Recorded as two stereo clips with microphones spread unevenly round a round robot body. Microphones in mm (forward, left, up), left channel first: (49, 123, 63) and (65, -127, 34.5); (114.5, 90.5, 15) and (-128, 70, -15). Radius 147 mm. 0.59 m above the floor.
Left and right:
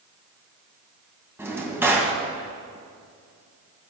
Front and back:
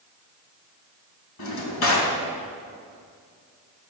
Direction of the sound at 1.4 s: 5° right.